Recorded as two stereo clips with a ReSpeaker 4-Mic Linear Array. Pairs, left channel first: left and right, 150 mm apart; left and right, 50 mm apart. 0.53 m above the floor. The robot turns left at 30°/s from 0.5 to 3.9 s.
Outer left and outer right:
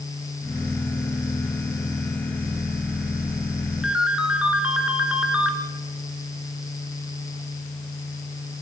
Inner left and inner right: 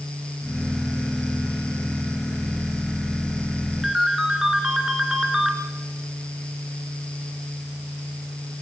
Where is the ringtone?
5° right (ahead or behind), 3 m.